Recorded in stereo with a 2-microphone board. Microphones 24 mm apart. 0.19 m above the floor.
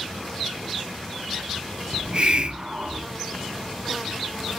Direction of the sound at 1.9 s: 40° right (ahead or behind).